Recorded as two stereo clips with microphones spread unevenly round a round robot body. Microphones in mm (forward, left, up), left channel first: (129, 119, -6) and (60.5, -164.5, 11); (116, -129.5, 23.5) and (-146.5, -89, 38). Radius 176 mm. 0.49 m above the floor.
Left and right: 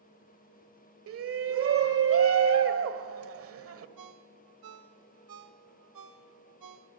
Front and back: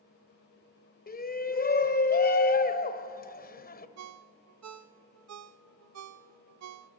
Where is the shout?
60° right, 1.9 m.